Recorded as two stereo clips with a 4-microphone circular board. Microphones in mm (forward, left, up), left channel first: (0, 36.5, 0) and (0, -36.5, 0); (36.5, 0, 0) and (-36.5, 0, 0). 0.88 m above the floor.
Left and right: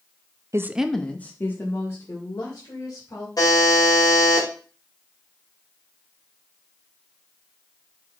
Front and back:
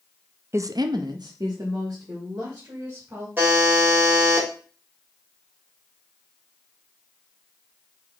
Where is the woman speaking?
130° right, 0.6 m; by 3.3 s 140° left, 3.5 m.